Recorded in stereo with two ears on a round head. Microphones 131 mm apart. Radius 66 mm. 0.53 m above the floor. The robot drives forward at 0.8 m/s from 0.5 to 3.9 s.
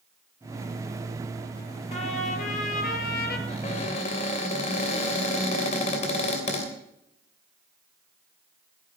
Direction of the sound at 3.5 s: 50° left (ahead or behind).